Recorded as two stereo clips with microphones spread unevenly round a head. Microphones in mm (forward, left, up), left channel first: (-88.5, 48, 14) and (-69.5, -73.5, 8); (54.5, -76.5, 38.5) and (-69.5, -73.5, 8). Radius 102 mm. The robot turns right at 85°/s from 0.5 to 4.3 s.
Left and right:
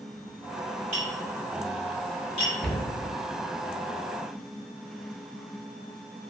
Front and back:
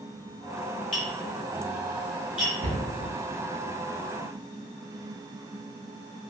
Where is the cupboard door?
Straight behind, 0.7 m; by 2.8 s 160° right, 0.7 m.